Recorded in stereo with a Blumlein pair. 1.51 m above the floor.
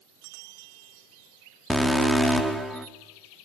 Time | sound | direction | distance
1.7 | an alarm | straight ahead | 1.5 m